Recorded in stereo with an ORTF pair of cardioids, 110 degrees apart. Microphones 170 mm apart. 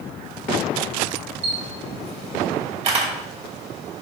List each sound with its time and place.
1.4 s a camera shutter: 40° right, 2.0 m